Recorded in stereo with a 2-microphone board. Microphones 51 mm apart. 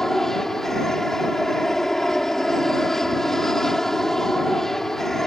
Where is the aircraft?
5° left (ahead or behind).